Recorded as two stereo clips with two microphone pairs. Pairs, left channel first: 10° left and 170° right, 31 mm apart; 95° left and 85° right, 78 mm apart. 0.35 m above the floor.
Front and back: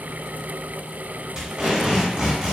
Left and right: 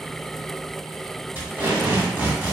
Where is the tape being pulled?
140° right, 2.0 m.